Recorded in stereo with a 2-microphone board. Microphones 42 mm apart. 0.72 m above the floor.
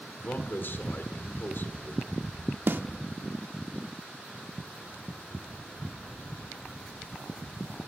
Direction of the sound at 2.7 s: 55° right (ahead or behind).